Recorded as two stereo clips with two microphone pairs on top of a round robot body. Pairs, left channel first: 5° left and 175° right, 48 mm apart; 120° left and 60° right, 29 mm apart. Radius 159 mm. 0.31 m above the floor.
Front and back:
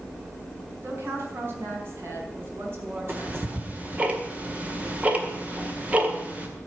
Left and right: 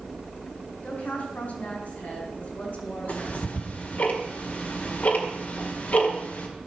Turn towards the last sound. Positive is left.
turn(degrees=135)